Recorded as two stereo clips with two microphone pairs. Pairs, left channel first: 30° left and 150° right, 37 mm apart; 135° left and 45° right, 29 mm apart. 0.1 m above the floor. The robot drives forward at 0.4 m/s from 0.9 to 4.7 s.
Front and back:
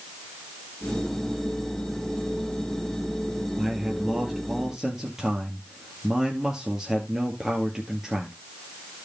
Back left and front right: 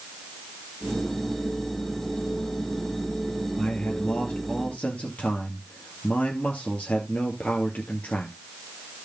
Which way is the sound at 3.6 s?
130° left.